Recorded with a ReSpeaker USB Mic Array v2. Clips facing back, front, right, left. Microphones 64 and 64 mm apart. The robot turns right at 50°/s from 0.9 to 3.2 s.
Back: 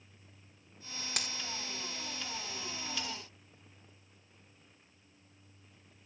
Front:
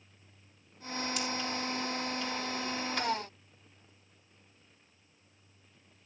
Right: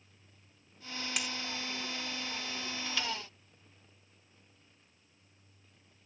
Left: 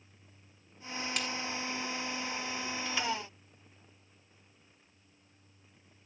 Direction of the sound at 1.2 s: 175° right.